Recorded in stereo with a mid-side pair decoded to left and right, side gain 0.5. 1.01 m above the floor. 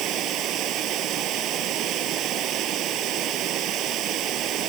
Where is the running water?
65° right.